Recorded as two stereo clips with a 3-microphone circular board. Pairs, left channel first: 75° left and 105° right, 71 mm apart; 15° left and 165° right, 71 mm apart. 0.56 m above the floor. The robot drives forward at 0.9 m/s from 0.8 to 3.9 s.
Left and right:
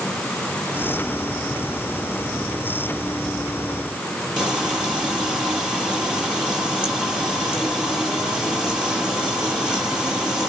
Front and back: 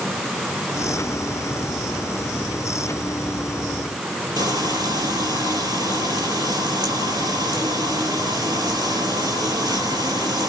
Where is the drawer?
I don't hear a drawer.